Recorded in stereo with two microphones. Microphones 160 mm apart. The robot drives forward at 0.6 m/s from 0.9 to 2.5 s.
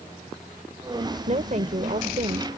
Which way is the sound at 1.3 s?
50° right (ahead or behind).